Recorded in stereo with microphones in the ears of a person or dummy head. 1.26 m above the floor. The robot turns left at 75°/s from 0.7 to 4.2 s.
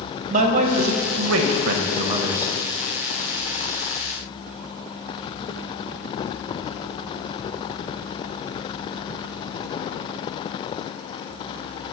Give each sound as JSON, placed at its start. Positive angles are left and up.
{"t": 0.3, "sound": "a man speaking", "azimuth_deg": -40, "distance_m": 0.8}